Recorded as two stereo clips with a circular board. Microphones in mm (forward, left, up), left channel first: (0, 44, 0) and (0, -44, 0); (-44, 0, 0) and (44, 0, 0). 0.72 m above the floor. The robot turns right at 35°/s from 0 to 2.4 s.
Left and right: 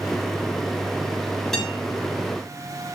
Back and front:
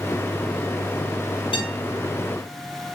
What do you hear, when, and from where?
1.5 s a guitar: 175° left, 8 m; by 1.8 s 175° right, 8 m